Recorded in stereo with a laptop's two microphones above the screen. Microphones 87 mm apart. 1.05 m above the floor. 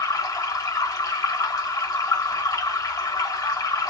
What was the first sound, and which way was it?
Running water, 40° left (ahead or behind).